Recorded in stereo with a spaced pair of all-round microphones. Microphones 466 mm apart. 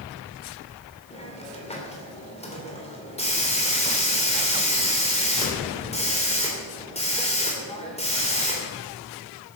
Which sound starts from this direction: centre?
A hiss, at 1.1 s.